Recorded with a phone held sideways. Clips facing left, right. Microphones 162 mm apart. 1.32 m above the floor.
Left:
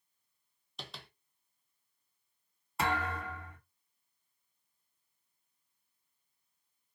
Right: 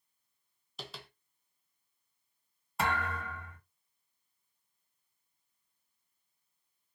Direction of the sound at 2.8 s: Centre (ahead or behind).